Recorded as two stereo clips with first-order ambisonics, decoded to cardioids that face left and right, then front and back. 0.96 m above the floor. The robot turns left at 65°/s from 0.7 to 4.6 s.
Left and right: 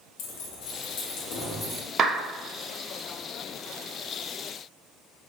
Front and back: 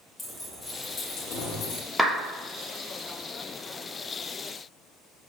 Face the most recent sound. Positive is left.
turn(degrees=100)